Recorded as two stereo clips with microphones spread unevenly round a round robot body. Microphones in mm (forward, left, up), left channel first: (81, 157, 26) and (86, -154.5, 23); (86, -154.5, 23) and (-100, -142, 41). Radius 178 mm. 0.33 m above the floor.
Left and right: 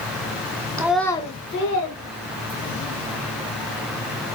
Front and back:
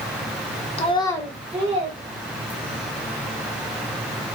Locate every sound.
0.8 s a child speaking: 15° right, 0.5 m; by 2.9 s 130° left, 1.3 m